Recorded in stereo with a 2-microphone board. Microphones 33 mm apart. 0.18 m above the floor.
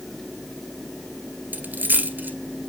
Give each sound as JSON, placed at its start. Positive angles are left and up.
{"t": 1.5, "sound": "a dropped coin", "side_deg": -70, "distance_m": 1.5}